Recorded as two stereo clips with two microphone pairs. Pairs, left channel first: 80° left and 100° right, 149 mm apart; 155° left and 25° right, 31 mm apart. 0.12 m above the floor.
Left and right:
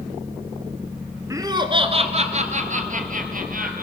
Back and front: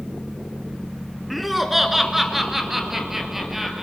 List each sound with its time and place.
1.3 s laughter: 100° right, 1.1 m